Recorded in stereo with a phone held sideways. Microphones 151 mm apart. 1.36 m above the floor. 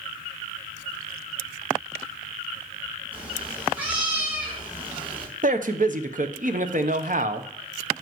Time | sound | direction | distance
3.1 | a cat meowing | 10° right (ahead or behind) | 4.5 m
5.4 | a man speaking | 60° right (ahead or behind) | 0.9 m